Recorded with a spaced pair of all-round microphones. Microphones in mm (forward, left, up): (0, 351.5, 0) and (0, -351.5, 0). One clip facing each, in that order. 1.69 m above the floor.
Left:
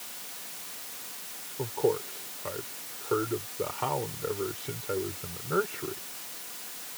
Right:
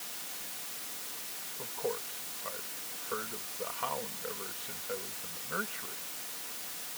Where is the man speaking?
85° left.